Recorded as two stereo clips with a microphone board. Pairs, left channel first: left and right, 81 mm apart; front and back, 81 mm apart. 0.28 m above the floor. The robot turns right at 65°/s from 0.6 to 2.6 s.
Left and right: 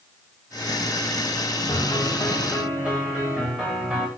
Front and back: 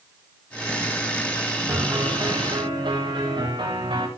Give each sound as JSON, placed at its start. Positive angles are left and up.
{"t": 1.7, "sound": "a piano", "azimuth_deg": 130, "distance_m": 6.0}